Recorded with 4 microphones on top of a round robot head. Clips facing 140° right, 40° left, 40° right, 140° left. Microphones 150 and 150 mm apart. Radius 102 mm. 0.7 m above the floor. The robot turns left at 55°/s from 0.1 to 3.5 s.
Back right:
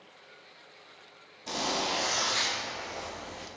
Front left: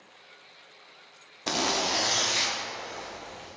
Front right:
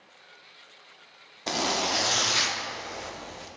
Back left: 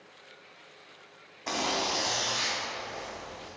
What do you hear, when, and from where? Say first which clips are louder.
1.5 s a zipper: front left 3 dB, front right 3 dB; 20° left, 0.6 m; by 3.5 s 90° right, 0.6 m